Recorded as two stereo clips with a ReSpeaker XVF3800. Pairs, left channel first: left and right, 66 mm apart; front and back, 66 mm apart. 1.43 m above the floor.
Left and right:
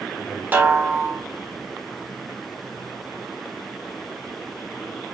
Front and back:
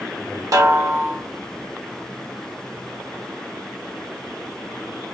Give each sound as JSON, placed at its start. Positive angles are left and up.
{"t": 0.5, "sound": "a snare drum", "azimuth_deg": -150, "distance_m": 1.9}